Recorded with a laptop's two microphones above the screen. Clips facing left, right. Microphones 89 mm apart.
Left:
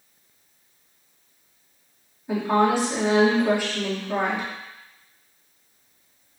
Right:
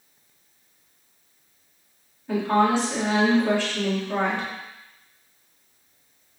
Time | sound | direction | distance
2.3 | a woman speaking | 15° left (ahead or behind) | 2 m